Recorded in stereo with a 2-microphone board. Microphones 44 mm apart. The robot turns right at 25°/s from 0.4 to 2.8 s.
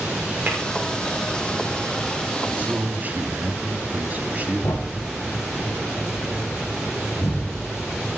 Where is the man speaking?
35° right (ahead or behind), 1.6 m; by 5.1 s 40° right (ahead or behind), 1.6 m.